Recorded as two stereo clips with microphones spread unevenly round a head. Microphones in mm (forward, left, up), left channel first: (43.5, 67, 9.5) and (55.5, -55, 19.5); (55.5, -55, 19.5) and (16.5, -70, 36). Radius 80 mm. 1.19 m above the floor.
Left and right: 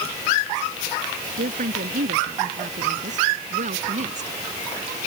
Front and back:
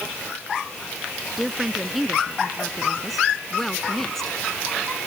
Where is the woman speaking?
80° right; by 4.3 s 60° right.